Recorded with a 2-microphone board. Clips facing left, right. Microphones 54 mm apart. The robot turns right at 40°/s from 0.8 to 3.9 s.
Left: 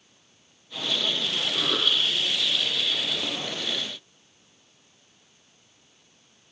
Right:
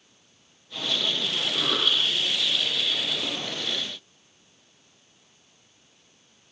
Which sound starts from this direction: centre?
A cough, at 1.5 s.